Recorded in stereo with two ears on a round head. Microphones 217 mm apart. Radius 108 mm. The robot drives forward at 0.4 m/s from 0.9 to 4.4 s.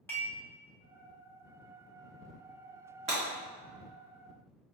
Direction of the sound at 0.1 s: 10° left (ahead or behind).